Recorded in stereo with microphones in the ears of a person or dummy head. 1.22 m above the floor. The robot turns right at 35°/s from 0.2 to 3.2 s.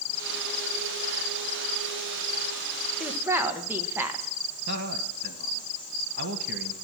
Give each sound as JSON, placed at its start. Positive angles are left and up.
{"t": 3.0, "sound": "a woman speaking", "side_deg": 0, "distance_m": 1.3}
{"t": 4.7, "sound": "a man speaking", "side_deg": -65, "distance_m": 1.2}